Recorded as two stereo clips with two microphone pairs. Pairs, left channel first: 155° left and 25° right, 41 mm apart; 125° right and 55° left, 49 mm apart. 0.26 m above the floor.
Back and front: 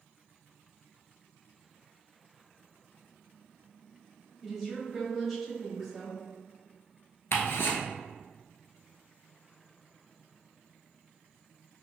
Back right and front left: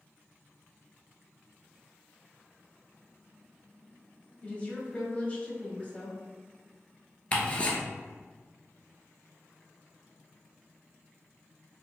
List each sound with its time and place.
4.4 s a woman speaking: 125° right, 1.3 m
7.3 s ticking: 170° left, 0.9 m